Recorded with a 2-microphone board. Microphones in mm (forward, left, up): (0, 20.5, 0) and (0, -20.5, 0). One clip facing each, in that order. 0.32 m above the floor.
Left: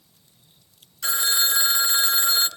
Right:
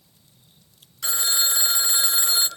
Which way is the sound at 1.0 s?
5° right (ahead or behind).